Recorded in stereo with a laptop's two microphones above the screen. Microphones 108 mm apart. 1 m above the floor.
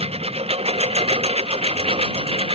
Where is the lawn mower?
65° right (ahead or behind); by 2.6 s 60° right (ahead or behind).